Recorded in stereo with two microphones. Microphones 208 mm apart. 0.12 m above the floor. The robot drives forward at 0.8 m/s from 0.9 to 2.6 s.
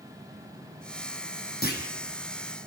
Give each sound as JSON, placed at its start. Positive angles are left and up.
{"t": 1.6, "sound": "a clunk", "side_deg": 50, "distance_m": 4.0}